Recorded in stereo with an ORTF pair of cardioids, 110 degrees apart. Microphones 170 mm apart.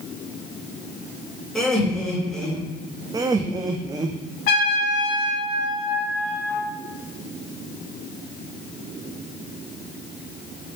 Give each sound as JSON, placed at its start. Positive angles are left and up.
{"t": 1.6, "sound": "laughter", "azimuth_deg": 5, "distance_m": 3.5}
{"t": 3.1, "sound": "laughter", "azimuth_deg": -20, "distance_m": 0.6}
{"t": 4.5, "sound": "a trumpet", "azimuth_deg": 60, "distance_m": 3.0}